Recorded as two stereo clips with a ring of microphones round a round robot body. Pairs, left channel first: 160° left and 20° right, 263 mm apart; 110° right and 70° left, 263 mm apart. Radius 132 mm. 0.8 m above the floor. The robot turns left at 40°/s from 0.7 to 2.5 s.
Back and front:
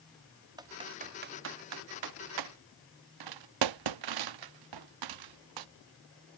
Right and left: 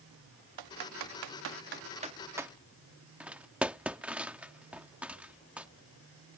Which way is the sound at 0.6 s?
55° left.